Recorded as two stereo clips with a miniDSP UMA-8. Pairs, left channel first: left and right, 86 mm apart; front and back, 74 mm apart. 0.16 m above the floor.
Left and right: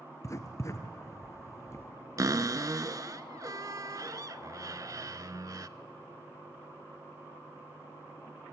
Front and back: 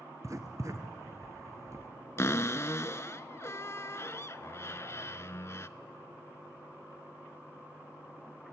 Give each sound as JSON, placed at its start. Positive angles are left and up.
{"t": 0.2, "sound": "writing", "azimuth_deg": 140, "distance_m": 1.8}
{"t": 2.2, "sound": "a cupboard door", "azimuth_deg": -50, "distance_m": 0.6}